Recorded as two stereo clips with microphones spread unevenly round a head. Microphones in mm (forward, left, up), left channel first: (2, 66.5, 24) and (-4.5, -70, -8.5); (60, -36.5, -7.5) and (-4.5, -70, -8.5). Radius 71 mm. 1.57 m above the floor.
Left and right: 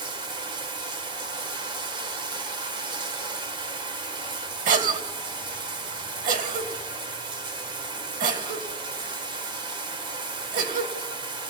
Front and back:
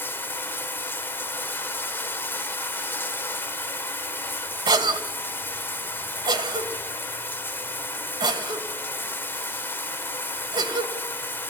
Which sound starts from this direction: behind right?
A cough, at 4.7 s.